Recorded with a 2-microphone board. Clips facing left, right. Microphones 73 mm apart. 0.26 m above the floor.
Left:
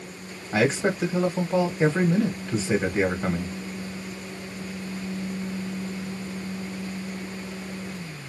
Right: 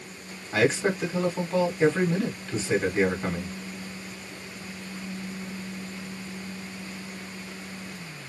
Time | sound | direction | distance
0.5 | a man speaking | 20° left (ahead or behind) | 1.3 m